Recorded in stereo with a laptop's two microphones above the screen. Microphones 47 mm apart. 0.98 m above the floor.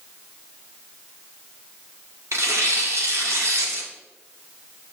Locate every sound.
2.3 s tearing paper: 75° right (ahead or behind), 1.2 m